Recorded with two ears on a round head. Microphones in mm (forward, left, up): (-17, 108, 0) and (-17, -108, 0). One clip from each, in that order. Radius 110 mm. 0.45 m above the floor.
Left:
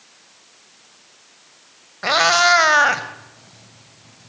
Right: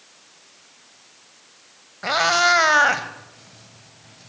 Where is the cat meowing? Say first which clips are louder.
Left 3 dB; 20° left (ahead or behind), 1.2 m; by 4.3 s 20° right (ahead or behind), 1.8 m.